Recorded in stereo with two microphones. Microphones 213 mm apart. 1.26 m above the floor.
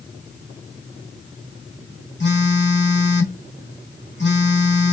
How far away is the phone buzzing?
About 1.3 m.